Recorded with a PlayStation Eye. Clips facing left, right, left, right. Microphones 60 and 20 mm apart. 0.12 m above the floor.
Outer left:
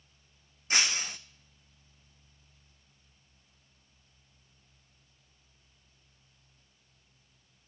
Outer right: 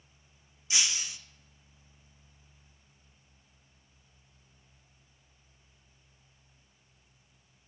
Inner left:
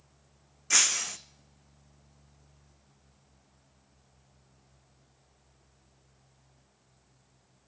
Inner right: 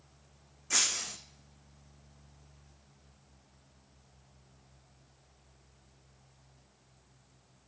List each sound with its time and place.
0.7 s breaking glass: 45° left (ahead or behind), 0.5 m